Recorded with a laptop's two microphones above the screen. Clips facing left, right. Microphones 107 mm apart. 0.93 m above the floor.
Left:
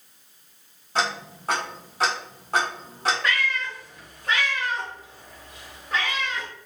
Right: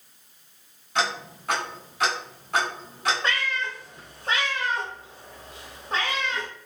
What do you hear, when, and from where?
0.9 s ticking: 35° left (ahead or behind), 1.0 m
3.2 s a cat meowing: 30° right (ahead or behind), 0.7 m